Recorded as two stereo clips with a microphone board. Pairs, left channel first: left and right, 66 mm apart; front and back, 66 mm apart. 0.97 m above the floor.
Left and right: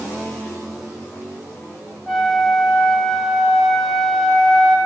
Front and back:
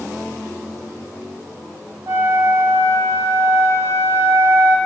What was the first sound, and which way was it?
A flute, 175° left.